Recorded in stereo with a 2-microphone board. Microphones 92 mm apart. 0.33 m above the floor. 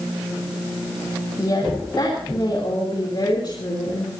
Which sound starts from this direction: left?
A woman speaking, at 1.4 s.